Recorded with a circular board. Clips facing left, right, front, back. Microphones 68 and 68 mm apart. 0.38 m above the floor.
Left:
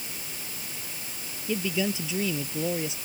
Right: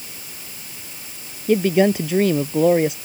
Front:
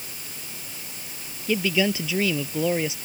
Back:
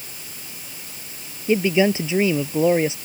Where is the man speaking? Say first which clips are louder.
Right 12 dB, back 5 dB; 115° right.